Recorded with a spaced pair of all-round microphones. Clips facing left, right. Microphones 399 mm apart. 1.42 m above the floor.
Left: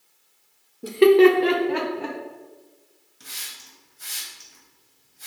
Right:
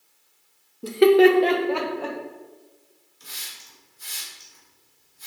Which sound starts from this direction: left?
A hiss, at 3.2 s.